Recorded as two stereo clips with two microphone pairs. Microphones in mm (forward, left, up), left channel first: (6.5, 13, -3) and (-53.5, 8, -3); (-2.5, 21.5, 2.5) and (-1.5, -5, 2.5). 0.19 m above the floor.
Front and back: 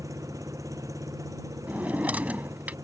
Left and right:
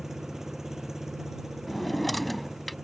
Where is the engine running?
160° right.